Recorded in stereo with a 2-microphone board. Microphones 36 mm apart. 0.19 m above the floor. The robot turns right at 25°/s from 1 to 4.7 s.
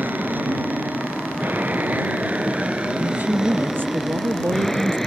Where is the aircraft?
85° right; by 5.1 s 5° left.